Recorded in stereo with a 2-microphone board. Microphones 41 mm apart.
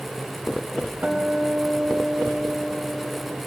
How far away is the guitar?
About 1.6 m.